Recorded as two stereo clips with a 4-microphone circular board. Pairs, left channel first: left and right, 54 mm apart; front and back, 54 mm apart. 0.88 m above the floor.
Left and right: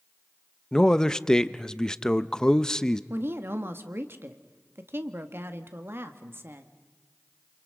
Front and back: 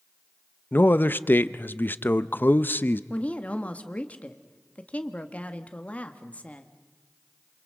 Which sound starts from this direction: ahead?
A man speaking, at 0.7 s.